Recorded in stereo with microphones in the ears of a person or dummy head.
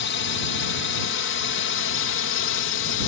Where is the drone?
60° left (ahead or behind); by 3.1 s 65° left (ahead or behind).